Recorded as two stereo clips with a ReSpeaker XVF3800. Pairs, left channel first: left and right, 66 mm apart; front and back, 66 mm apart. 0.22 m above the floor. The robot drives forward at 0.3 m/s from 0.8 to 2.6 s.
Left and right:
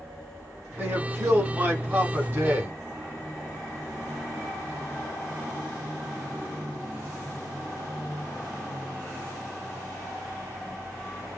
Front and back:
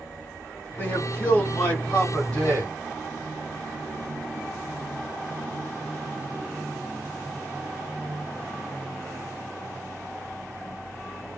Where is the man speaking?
45° right, 1.7 m; by 2.7 s 70° right, 1.5 m.